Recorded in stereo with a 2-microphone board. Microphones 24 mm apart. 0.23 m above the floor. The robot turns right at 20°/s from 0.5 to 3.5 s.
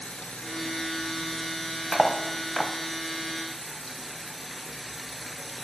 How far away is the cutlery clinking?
About 0.5 m.